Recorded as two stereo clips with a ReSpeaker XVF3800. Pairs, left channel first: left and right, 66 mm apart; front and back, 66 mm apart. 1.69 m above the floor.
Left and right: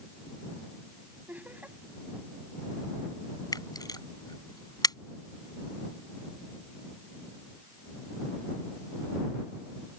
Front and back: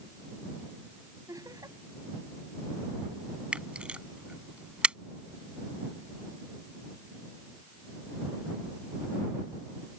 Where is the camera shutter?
105° left.